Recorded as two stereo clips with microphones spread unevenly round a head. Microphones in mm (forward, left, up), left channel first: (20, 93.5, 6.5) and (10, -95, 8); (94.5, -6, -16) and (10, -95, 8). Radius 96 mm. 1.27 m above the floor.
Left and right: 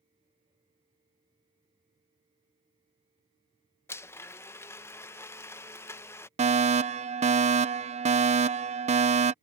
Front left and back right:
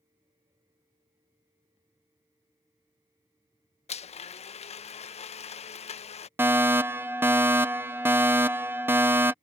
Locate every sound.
3.9 s a blender: 10° left
6.4 s a fire alarm: 55° right